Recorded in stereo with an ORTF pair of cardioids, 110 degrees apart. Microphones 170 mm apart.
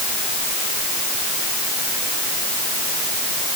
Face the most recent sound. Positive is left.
No sound to turn to.